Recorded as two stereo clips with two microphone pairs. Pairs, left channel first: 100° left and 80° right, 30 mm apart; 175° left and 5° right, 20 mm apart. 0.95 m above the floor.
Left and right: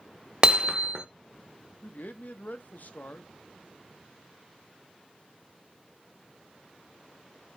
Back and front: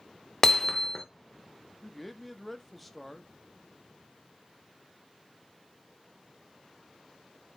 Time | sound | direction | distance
0.4 | hammering | 130° right | 0.8 m
1.8 | a man speaking | 90° left | 0.9 m